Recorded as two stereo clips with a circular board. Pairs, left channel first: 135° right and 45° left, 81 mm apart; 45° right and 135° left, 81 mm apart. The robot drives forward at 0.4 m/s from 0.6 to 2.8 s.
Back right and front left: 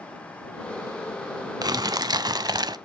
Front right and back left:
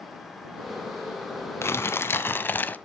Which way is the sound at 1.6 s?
10° left.